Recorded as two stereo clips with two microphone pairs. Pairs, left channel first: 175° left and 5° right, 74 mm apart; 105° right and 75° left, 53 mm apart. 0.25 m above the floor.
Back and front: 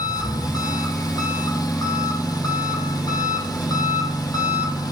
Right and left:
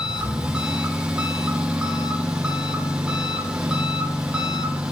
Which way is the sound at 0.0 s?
150° left.